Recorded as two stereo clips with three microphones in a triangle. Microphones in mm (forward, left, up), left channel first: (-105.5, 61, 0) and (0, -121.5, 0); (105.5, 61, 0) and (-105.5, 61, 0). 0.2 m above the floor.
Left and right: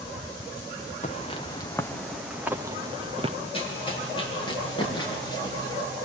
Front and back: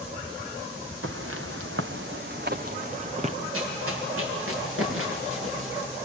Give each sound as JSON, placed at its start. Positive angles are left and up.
{"t": 1.0, "sound": "footsteps", "azimuth_deg": 180, "distance_m": 1.8}
{"t": 3.5, "sound": "running footsteps", "azimuth_deg": -175, "distance_m": 7.5}